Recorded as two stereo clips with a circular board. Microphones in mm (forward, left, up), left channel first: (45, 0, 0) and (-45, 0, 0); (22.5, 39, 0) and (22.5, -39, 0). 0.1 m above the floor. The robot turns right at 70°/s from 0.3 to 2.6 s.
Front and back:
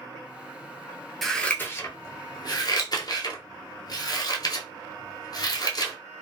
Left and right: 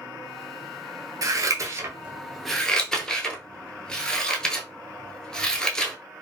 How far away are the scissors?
About 0.6 m.